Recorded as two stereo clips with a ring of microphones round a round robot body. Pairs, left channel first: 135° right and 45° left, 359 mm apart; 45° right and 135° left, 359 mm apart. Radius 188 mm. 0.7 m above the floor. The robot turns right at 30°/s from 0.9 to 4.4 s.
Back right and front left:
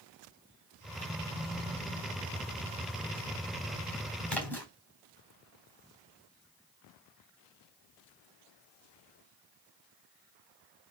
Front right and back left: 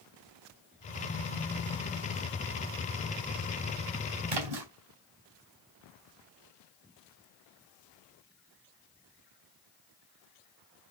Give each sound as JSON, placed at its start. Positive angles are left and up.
{"t": 4.3, "sound": "a splash", "azimuth_deg": 135, "distance_m": 4.0}